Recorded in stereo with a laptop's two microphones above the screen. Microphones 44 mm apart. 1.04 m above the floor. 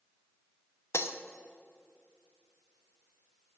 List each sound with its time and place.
0.9 s breaking glass: 75° left (ahead or behind), 0.5 m